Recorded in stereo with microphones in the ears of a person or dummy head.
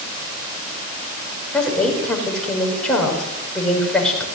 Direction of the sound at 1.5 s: Centre (ahead or behind).